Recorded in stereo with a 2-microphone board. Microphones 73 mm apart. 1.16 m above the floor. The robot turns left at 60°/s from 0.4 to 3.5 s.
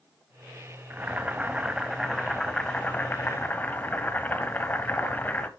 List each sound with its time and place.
0.9 s boiling: 25° right (ahead or behind), 1.0 m; by 5.5 s 25° left (ahead or behind), 1.0 m